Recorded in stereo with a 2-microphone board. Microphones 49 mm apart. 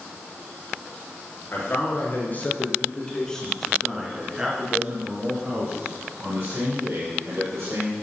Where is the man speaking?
50° left (ahead or behind), 3.5 m; by 7.9 s 60° right (ahead or behind), 6 m.